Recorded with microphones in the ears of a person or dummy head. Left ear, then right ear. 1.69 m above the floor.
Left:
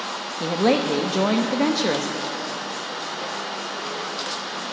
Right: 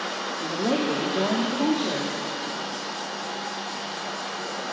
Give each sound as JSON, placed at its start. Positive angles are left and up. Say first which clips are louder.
{"t": 0.4, "sound": "a woman speaking", "louder": "left 6 dB", "side_deg": 80, "distance_m": 0.6}